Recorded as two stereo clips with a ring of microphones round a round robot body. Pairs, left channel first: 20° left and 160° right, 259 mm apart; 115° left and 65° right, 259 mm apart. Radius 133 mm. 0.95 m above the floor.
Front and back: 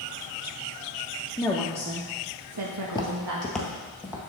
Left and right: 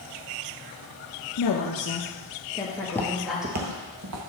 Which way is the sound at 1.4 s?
100° left.